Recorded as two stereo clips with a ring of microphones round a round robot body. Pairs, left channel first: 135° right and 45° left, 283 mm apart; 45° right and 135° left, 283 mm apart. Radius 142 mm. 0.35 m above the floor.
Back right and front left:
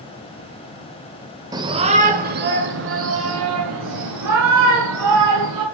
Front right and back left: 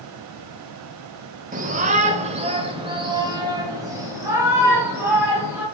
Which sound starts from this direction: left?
A shout, at 1.5 s.